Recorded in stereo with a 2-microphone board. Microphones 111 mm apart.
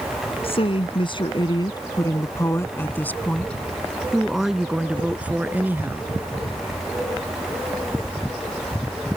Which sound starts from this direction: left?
A woman speaking, at 0.4 s.